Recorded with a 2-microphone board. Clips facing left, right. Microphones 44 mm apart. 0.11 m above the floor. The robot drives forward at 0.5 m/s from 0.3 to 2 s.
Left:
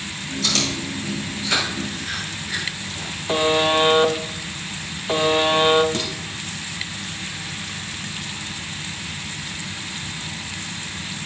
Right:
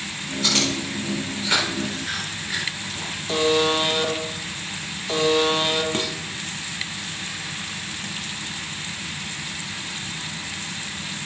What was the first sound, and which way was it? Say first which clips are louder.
Chewing: right 1 dB; 20° right (ahead or behind).